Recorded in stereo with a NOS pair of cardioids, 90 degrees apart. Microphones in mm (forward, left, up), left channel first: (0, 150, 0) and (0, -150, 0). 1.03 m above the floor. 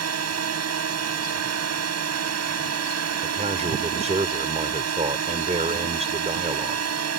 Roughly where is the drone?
Ahead right.